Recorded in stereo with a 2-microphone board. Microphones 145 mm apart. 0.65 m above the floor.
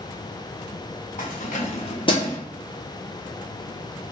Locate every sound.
1.2 s keys jangling: 60° left (ahead or behind), 1.2 m; by 2.4 s 20° left (ahead or behind), 0.6 m